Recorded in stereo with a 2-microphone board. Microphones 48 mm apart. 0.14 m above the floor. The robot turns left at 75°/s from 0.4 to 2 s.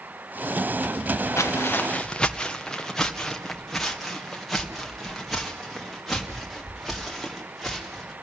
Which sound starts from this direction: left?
Footsteps, at 1.4 s.